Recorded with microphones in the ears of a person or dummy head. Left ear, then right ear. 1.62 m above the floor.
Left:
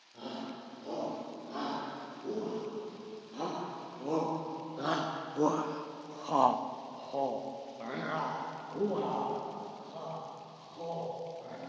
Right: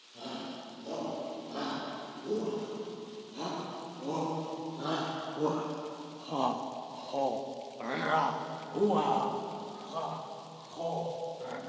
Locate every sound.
0.1 s a shout: 65° left (ahead or behind), 6.5 m; by 11.6 s 45° right (ahead or behind), 6 m